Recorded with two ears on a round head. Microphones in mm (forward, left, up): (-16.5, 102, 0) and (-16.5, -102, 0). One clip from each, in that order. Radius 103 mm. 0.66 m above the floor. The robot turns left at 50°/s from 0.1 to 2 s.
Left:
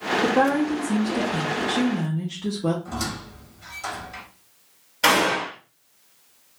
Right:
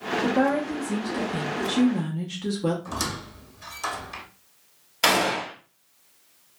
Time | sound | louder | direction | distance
0.2 | a woman speaking | left 3 dB | 30° left | 0.7 m
2.9 | a squeak | even | 35° right (ahead or behind) | 0.8 m
5.0 | a gunshot | left 2 dB | 20° right (ahead or behind) | 1.2 m